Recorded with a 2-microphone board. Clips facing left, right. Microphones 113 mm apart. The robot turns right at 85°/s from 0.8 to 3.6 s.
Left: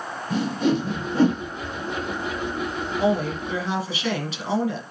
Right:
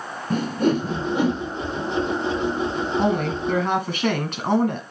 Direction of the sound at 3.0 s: 125° right.